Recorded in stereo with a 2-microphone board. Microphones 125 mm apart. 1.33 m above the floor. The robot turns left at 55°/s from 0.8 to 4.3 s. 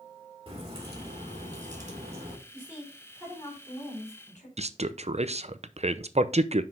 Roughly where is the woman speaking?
Behind.